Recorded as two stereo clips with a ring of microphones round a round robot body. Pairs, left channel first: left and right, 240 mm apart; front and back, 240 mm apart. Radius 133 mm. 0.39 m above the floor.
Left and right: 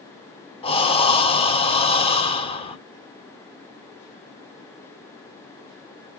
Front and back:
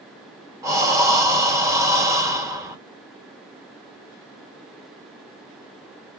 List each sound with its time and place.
0.6 s breathing: 120° left, 1.3 m